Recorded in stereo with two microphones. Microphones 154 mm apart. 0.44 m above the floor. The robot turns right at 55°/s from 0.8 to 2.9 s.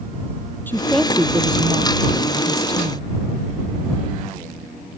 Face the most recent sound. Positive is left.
turn(degrees=-75)